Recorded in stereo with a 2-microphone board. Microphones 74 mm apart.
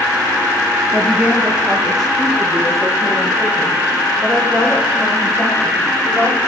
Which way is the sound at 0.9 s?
20° right (ahead or behind).